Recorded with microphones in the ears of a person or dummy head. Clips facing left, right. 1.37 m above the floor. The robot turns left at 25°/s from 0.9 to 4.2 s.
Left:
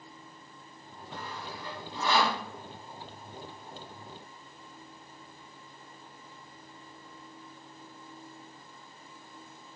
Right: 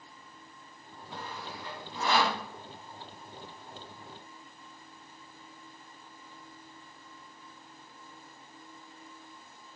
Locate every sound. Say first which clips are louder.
1.1 s sawing: left 1 dB; 10° left (ahead or behind), 1.2 m; by 2.4 s 30° left (ahead or behind), 1.2 m